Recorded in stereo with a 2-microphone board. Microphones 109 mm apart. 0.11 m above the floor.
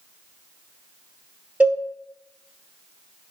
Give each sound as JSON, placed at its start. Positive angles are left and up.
{"t": 1.6, "sound": "a cowbell", "side_deg": -10, "distance_m": 0.6}